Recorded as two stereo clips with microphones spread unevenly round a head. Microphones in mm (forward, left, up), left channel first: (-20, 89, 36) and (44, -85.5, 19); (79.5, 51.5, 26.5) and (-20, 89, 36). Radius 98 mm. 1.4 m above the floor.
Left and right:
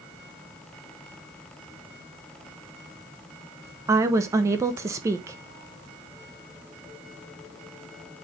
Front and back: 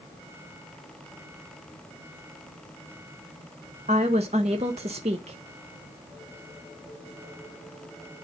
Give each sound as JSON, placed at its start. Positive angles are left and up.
{"t": 3.9, "sound": "a woman speaking", "azimuth_deg": -145, "distance_m": 0.8}